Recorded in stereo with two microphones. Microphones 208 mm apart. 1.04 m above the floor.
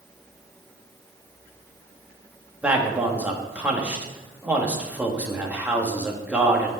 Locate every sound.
2.6 s a man speaking: 5° right (ahead or behind), 1.8 m